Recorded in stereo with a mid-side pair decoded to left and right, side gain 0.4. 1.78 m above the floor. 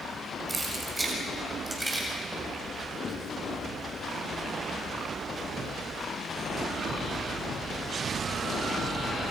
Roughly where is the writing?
Ahead left.